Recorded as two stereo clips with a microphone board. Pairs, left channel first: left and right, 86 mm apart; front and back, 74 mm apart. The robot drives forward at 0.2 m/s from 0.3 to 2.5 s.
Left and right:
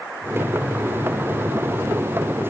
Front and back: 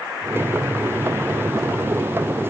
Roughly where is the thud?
No thud in this recording.